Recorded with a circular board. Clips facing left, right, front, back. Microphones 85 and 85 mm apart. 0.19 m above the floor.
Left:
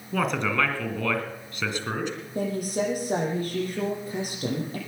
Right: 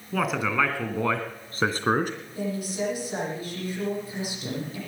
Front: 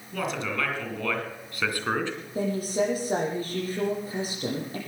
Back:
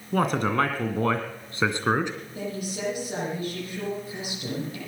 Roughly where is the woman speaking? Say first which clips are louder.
Left 3 dB, front 9 dB; ahead left.